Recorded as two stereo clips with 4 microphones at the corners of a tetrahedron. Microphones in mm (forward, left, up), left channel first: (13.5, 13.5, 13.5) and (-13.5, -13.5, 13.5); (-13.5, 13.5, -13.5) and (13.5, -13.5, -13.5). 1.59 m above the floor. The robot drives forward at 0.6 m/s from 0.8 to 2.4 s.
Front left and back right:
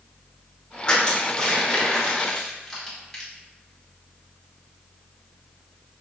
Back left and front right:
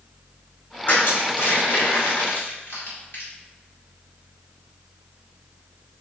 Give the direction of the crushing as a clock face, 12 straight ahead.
9 o'clock.